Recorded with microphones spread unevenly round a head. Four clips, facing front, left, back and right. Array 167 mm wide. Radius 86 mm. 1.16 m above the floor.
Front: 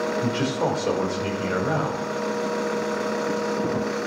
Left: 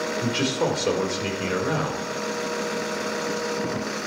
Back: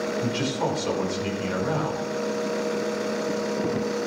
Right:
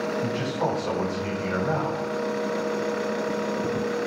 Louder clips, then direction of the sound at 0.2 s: Left 2 dB, front 2 dB; 110° left.